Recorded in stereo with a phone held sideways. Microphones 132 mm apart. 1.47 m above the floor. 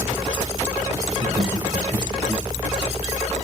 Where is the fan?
25° right (ahead or behind), 1.0 m.